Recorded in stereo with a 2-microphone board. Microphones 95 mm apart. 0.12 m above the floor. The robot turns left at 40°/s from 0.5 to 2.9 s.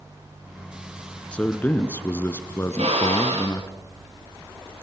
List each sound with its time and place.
1.3 s a man speaking: 10° left (ahead or behind), 1.1 m; by 3.7 s 25° left (ahead or behind), 1.1 m
2.7 s a drill: 80° right, 4 m; by 3.6 s 85° right, 4 m